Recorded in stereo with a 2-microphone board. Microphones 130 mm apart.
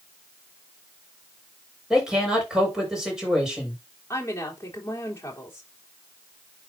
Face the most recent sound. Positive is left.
turn(degrees=20)  # may be behind; listen again after turning